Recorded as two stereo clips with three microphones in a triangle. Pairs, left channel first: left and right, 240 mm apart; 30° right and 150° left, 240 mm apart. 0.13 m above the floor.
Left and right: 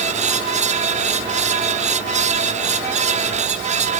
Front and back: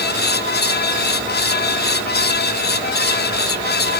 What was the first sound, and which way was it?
Only background noise.